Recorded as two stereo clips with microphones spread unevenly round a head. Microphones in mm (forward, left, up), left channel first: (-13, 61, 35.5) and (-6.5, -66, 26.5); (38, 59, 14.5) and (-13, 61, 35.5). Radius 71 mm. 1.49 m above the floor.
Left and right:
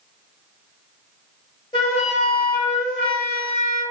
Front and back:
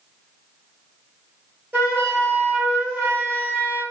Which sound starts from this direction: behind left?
A flute, at 1.7 s.